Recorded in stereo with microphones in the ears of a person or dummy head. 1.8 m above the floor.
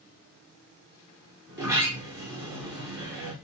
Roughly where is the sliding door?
Right.